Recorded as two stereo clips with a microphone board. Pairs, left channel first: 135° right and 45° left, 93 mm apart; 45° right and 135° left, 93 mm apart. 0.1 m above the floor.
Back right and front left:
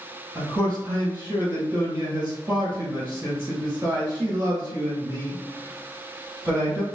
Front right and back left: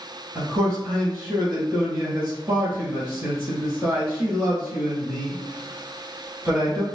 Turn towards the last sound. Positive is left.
turn(degrees=90)